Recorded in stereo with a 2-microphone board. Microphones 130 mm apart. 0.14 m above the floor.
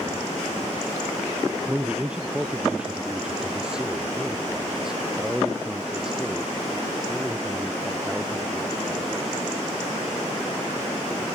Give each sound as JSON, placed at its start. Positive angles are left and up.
{"t": 1.7, "sound": "a man speaking", "side_deg": -10}